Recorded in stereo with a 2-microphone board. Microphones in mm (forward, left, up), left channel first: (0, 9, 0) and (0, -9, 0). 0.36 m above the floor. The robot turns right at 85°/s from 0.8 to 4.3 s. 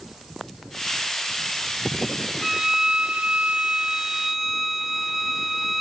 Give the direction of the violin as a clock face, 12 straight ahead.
6 o'clock.